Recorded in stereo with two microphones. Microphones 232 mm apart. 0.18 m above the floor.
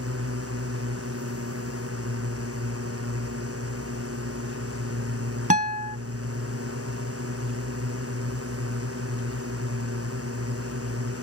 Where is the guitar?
35° right (ahead or behind).